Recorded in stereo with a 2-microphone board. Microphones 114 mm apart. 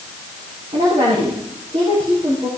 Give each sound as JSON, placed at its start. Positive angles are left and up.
{"t": 0.7, "sound": "a woman speaking", "side_deg": -60, "distance_m": 5.5}